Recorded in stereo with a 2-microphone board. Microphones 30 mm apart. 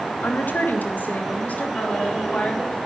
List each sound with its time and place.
0.2 s a woman speaking: 80° left, 1.4 m; by 2.8 s 45° left (ahead or behind), 3 m